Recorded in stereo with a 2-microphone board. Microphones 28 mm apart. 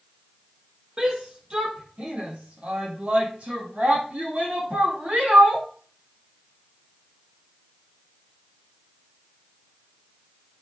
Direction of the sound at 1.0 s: 25° right (ahead or behind).